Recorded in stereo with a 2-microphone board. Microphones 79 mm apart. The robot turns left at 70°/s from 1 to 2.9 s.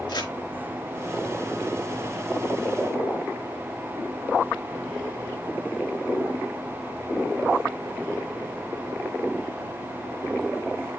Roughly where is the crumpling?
Left.